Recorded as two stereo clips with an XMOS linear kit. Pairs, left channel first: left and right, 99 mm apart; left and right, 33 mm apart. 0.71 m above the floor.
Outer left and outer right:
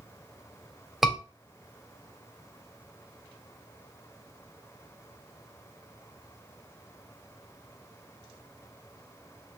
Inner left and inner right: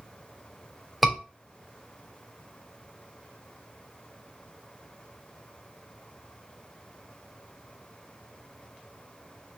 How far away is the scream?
About 3.5 m.